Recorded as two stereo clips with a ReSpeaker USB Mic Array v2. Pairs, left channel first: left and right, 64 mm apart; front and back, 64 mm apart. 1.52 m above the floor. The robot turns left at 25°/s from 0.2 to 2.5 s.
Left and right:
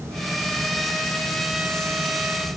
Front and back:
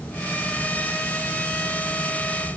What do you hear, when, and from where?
Only background noise.